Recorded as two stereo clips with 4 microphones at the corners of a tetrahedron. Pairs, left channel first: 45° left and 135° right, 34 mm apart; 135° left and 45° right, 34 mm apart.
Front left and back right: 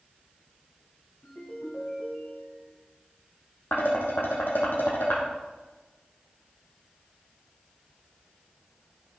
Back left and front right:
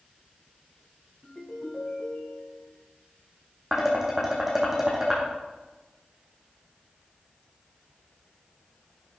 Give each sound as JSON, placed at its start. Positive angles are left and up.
{"t": 1.2, "sound": "a ringtone", "azimuth_deg": 55, "distance_m": 5.0}
{"t": 3.7, "sound": "dishes clattering", "azimuth_deg": 35, "distance_m": 4.0}